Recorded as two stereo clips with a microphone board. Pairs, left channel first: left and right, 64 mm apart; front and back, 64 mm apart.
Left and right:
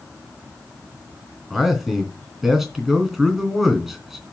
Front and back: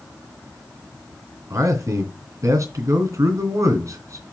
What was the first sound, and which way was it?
A man speaking, straight behind.